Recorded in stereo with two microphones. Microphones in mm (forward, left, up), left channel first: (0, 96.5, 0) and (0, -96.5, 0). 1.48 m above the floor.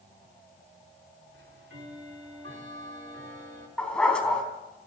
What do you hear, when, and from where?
1.3 s ticking: 85° right, 3.5 m
3.8 s a dog barking: 5° left (ahead or behind), 3.5 m